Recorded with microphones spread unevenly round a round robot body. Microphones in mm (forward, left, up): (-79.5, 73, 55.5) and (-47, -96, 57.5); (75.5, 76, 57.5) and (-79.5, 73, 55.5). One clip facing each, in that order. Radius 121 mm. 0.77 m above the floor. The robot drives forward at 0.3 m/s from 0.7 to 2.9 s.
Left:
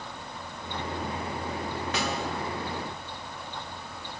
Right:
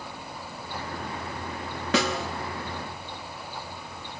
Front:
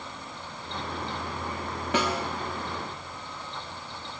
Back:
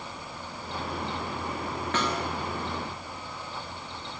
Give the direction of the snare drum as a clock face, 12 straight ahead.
3 o'clock.